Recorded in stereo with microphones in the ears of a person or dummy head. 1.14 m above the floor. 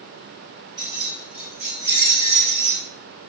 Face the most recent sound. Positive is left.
turn(degrees=-55)  # may be behind; listen again after turning